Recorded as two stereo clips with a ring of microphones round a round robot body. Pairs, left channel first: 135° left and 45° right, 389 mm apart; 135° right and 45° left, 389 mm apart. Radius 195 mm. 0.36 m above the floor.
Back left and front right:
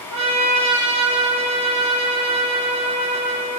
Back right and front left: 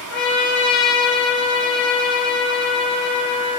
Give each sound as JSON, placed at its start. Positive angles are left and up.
{"t": 0.1, "sound": "a trumpet", "azimuth_deg": -105, "distance_m": 3.5}